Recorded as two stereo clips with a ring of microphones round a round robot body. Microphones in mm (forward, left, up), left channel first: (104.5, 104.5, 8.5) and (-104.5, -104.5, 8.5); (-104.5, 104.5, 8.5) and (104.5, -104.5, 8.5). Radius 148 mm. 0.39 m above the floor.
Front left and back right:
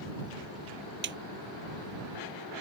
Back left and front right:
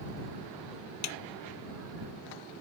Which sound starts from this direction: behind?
A snare drum, at 1.0 s.